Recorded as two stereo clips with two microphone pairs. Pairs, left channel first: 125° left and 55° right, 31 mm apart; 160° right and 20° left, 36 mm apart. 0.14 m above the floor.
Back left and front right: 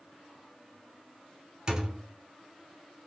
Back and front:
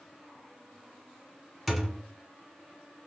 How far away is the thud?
About 0.7 m.